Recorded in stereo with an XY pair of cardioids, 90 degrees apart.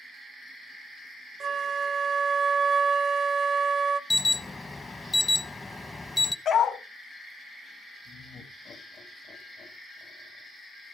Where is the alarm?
25° left, 1.1 m.